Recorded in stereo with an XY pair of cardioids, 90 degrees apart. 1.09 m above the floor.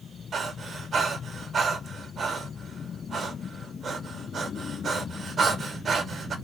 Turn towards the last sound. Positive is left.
turn(degrees=-55)